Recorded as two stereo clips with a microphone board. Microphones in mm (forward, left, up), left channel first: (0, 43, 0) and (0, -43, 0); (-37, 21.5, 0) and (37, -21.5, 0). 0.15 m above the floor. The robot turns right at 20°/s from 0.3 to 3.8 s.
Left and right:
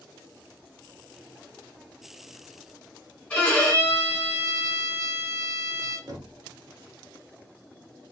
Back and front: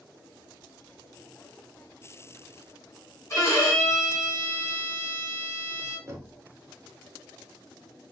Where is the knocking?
70° right, 1.0 m.